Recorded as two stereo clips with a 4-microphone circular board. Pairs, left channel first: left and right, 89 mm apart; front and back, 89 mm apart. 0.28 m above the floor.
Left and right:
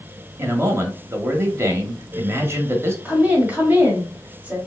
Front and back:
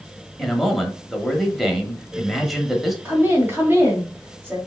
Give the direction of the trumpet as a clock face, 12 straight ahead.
I don't hear a trumpet.